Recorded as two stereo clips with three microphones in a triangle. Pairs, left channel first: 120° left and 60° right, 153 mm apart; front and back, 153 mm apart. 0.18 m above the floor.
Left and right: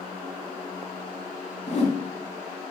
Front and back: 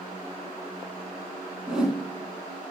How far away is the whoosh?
About 0.7 m.